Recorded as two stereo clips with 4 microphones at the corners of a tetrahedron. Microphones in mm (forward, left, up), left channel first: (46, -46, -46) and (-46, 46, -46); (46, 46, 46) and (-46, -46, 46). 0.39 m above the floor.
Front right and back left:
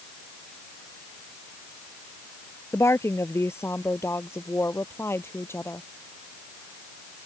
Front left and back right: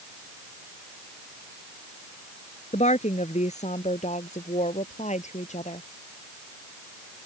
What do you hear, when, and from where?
2.7 s a woman speaking: 25° left